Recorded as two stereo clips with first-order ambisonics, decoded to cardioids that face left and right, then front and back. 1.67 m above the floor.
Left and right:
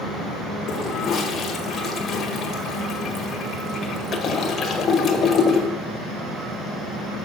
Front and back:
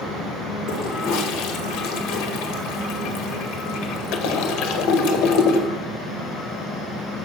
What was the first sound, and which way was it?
A toilet flushing, 25° left.